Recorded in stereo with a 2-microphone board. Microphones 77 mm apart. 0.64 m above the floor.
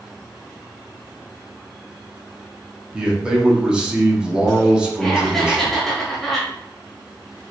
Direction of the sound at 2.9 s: 15° right (ahead or behind).